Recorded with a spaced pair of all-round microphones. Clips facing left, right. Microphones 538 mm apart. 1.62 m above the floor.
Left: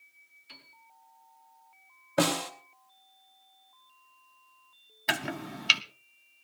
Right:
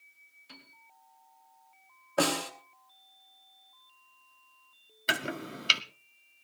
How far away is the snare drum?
About 2.5 m.